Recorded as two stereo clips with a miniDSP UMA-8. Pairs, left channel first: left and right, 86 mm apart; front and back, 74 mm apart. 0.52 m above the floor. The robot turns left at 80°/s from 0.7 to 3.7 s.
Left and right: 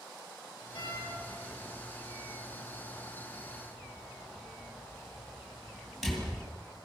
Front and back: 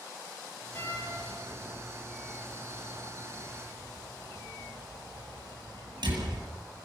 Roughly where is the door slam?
Ahead left.